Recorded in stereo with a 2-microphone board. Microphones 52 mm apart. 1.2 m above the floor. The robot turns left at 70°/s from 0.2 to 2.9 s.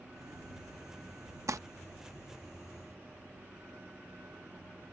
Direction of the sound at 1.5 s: 75° right (ahead or behind).